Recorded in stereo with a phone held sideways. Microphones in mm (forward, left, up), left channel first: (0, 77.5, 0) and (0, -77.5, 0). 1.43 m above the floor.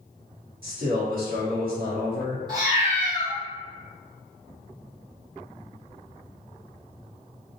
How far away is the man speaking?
About 1.2 m.